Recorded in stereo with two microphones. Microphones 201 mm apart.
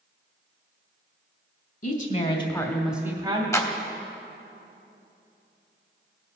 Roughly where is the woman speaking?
Left.